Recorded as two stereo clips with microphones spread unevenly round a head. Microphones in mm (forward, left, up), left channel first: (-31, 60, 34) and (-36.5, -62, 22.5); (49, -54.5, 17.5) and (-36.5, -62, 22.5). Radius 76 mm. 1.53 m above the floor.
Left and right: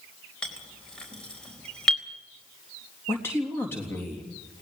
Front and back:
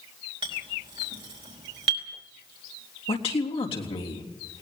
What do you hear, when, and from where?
0.4 s a clink: 170° left, 4 m
3.1 s a man speaking: 10° left, 3.5 m